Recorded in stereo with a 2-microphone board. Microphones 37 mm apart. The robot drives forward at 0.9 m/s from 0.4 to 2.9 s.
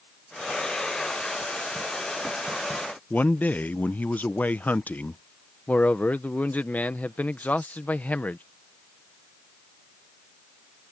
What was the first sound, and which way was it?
A man speaking, 45° left (ahead or behind).